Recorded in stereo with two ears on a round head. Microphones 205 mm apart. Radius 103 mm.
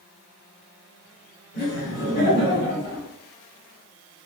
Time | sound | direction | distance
1.5 | laughter | 45° left (ahead or behind) | 1.8 m